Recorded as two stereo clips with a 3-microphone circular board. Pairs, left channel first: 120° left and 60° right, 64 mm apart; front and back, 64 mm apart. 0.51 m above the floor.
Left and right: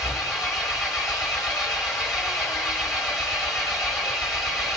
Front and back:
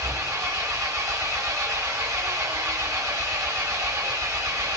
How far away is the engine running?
About 1.6 m.